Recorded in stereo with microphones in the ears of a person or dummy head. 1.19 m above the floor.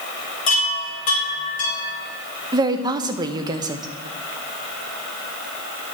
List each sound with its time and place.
0.5 s a chime: 50° left (ahead or behind), 3.5 m
2.5 s a woman speaking: 20° right (ahead or behind), 0.8 m